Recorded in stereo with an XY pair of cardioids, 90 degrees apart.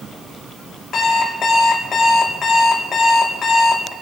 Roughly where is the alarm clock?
Ahead left.